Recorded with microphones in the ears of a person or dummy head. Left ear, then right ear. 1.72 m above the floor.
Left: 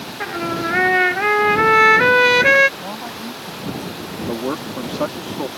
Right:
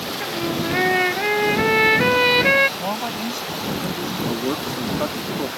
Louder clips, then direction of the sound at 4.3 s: Even; 85° left.